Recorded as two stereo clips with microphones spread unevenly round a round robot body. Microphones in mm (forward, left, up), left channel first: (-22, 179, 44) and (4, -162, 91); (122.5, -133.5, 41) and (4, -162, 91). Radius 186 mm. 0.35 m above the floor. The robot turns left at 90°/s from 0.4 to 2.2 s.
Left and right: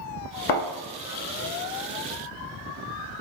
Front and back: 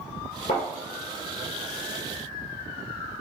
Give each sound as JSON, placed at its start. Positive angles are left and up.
{"t": 0.5, "sound": "a thud", "azimuth_deg": 90, "distance_m": 1.1}